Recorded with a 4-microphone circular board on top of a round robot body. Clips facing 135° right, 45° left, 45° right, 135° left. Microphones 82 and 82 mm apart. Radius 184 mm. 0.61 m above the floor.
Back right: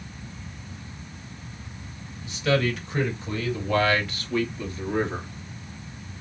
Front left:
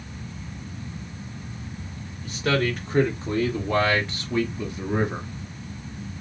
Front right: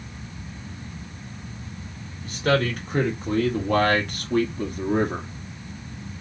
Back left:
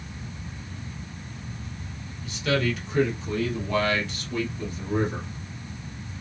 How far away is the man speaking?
About 3 m.